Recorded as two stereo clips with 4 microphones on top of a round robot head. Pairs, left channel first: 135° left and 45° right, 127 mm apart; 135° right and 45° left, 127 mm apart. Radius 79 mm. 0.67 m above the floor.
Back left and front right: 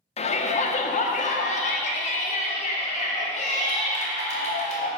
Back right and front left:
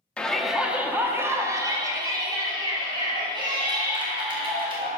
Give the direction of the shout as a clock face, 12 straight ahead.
7 o'clock.